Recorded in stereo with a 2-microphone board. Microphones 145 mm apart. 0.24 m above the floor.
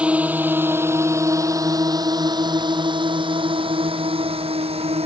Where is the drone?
5° right (ahead or behind); by 5.1 s 40° right (ahead or behind).